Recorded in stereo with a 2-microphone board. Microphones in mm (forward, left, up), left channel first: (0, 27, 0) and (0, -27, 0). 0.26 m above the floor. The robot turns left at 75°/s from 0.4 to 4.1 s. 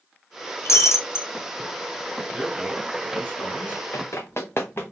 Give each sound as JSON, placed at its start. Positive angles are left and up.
{"t": 0.7, "sound": "breaking glass", "azimuth_deg": 100, "distance_m": 0.6}
{"t": 2.3, "sound": "a man speaking", "azimuth_deg": -170, "distance_m": 2.0}
{"t": 3.9, "sound": "running footsteps", "side_deg": 75, "distance_m": 0.9}